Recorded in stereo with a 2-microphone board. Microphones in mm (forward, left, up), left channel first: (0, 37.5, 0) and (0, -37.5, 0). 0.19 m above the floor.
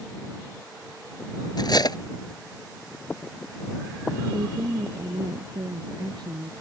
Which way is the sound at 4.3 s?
65° right (ahead or behind).